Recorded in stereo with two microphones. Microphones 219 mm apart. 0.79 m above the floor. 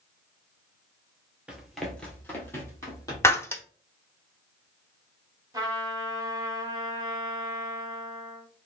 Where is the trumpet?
15° right (ahead or behind), 0.9 m.